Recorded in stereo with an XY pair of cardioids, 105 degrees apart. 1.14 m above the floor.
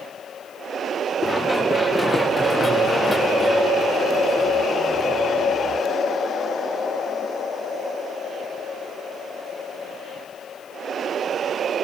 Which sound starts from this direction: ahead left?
Running footsteps, at 1.2 s.